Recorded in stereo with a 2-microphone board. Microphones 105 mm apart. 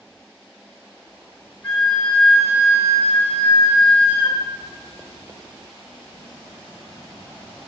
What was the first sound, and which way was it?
A flute, 15° left (ahead or behind).